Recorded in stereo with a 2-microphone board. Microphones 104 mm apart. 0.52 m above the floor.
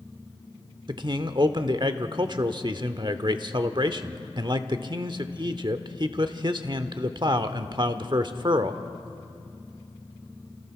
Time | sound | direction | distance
0.9 | a man speaking | 45° right (ahead or behind) | 1.0 m